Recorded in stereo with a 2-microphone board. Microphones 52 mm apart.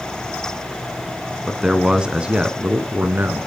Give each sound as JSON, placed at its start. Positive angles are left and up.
{"t": 1.5, "sound": "a man speaking", "side_deg": -5, "distance_m": 1.4}